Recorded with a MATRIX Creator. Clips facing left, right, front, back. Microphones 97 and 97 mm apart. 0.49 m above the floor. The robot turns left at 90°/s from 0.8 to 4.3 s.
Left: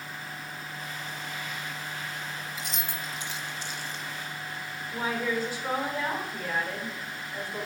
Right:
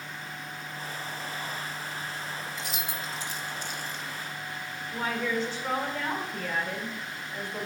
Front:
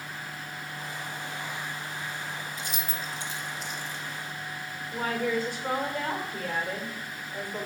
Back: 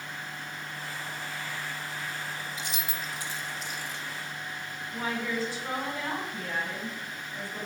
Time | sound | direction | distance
2.6 | keys jangling | 5° left | 0.9 m
4.9 | a woman speaking | 15° left | 1.3 m